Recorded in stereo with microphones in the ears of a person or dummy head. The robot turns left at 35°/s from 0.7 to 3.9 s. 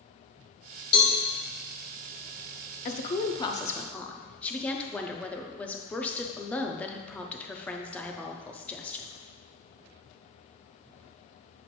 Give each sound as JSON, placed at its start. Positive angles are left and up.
{"t": 0.9, "sound": "a cowbell", "side_deg": 30, "distance_m": 1.5}
{"t": 2.9, "sound": "a woman speaking", "azimuth_deg": 45, "distance_m": 0.5}